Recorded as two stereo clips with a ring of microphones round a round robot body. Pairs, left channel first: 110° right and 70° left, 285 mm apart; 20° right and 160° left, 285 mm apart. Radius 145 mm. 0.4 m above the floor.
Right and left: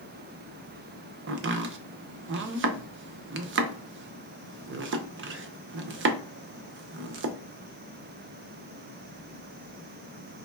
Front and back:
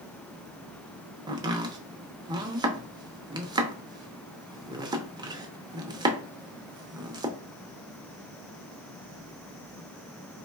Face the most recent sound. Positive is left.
turn(degrees=90)